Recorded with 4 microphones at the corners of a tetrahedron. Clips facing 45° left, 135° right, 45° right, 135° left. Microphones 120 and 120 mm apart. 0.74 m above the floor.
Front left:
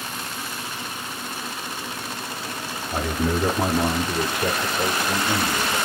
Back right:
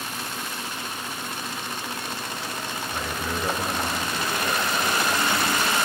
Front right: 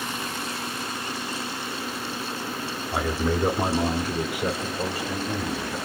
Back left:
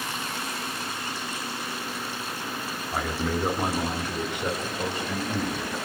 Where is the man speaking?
40° left, 1.5 m; by 5.8 s 45° left, 3.5 m.